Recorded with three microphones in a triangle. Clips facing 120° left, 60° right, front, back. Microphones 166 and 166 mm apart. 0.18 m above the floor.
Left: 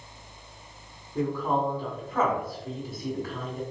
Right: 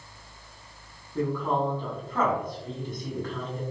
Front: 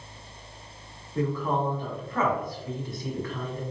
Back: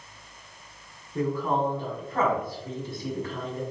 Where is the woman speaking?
165° right, 1.5 m.